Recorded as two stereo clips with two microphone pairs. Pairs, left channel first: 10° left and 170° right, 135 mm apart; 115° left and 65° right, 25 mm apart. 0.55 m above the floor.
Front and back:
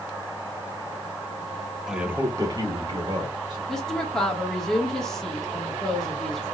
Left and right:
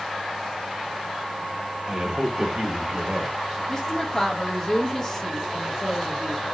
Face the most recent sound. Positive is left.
turn(degrees=90)